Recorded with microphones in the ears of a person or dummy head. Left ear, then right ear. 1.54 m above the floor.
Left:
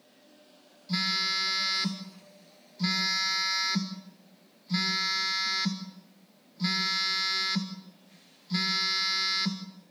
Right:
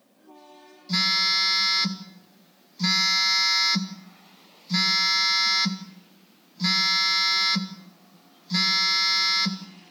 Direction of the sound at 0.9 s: 15° right (ahead or behind).